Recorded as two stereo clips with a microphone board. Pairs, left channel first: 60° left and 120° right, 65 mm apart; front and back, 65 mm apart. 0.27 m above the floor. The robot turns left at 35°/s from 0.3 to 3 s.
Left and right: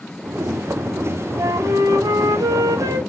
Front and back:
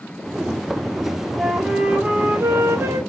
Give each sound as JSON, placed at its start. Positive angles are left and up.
{"t": 1.4, "sound": "a flute", "azimuth_deg": -90, "distance_m": 0.6}